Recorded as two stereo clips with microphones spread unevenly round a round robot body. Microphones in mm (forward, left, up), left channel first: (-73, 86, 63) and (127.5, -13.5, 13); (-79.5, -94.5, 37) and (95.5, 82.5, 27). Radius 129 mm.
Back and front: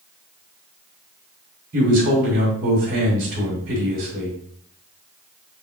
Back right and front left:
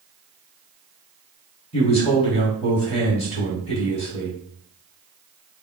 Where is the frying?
No frying in this recording.